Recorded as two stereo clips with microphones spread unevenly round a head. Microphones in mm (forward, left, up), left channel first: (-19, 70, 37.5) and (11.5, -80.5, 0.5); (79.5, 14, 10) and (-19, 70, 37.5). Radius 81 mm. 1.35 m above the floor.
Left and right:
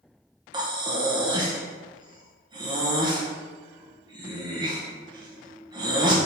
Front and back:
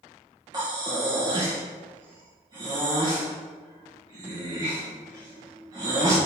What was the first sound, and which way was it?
Breathing, 145° right.